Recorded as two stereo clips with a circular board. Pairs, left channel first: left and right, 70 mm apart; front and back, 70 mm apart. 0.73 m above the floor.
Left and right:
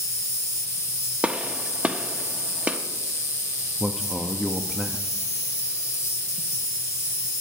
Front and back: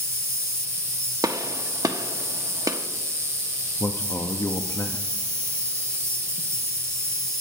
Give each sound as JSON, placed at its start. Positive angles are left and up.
{"t": 0.0, "sound": "an insect", "azimuth_deg": 135, "distance_m": 0.9}
{"t": 1.2, "sound": "a gunshot", "azimuth_deg": -160, "distance_m": 0.7}
{"t": 3.8, "sound": "a man speaking", "azimuth_deg": -10, "distance_m": 0.6}